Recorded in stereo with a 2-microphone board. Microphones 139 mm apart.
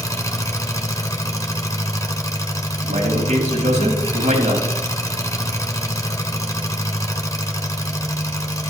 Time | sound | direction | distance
0.0 | an engine running | 25° left (ahead or behind) | 1.4 m
2.8 | a man speaking | 70° right (ahead or behind) | 4.5 m